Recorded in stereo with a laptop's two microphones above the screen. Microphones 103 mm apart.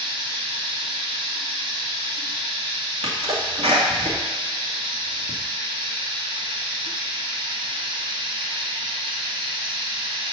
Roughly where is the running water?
Right.